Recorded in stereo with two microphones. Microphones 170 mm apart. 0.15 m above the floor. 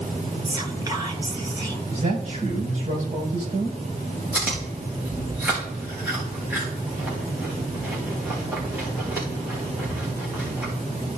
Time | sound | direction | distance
0.5 | whispering | 20° right (ahead or behind) | 2.5 m
1.9 | a man speaking | 45° right (ahead or behind) | 5 m
4.3 | chewing | 10° right (ahead or behind) | 5 m